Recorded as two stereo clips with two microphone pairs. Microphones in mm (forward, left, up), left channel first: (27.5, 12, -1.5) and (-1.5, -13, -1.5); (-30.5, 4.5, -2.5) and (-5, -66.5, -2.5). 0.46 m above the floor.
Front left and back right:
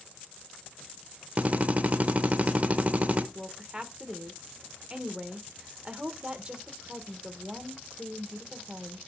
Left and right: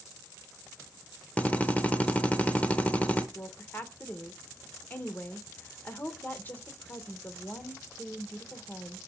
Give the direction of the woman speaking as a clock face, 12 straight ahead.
7 o'clock.